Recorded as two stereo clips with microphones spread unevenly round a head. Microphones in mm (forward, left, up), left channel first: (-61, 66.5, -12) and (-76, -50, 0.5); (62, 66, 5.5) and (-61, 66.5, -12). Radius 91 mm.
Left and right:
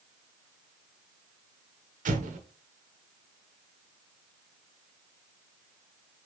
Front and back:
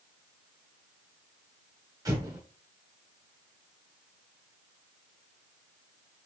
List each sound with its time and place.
2.0 s an explosion: 110° right, 0.8 m